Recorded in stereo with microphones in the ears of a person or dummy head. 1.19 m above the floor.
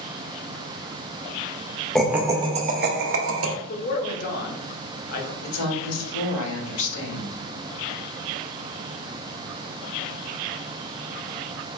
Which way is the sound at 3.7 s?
45° left (ahead or behind).